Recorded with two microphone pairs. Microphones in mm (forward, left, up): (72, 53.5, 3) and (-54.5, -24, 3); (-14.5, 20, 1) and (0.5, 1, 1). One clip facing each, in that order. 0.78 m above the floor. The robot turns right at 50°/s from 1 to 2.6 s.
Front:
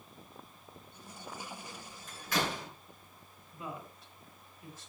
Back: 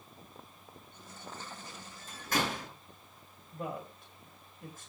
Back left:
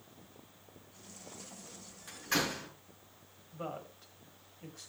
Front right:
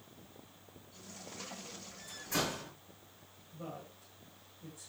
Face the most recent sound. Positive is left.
turn(degrees=170)